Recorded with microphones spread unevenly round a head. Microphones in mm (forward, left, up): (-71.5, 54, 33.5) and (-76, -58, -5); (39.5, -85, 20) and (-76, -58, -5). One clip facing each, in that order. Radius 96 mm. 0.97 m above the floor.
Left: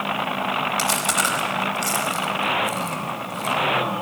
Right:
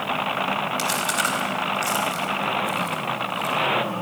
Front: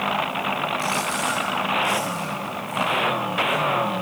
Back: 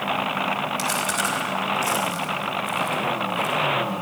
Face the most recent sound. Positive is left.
turn(degrees=125)